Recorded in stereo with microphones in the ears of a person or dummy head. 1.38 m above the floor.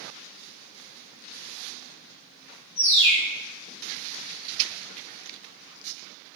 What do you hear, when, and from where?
2.8 s a bird: 70° left (ahead or behind), 0.9 m